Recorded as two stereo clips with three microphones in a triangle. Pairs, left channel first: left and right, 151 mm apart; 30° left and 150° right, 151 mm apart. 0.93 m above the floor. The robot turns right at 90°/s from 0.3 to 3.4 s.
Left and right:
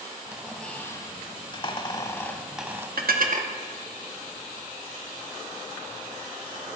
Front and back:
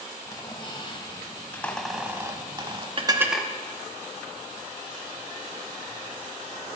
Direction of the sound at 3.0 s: 95° right.